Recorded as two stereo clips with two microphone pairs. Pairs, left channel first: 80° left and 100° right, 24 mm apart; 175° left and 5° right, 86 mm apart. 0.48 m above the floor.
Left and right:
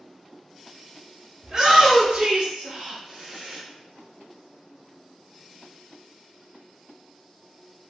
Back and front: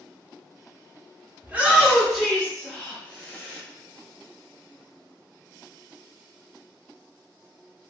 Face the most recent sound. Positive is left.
turn(degrees=-130)